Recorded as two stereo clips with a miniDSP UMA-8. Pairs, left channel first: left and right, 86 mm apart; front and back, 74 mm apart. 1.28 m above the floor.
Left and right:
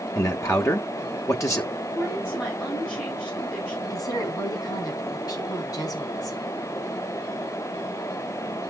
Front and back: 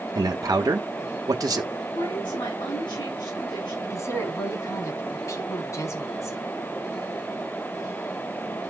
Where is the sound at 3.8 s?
45° left, 3.5 m.